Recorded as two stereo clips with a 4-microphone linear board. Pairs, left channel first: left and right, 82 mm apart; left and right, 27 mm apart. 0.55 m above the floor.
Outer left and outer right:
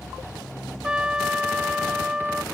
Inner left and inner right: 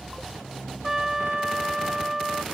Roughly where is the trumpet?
Centre.